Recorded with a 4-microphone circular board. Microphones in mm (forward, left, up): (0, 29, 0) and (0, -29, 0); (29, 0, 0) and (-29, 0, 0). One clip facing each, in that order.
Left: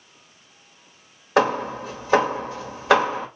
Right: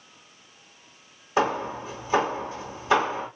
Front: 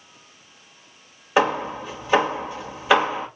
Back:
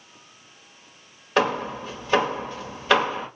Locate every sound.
1.4 s hammering: 80° left, 1.2 m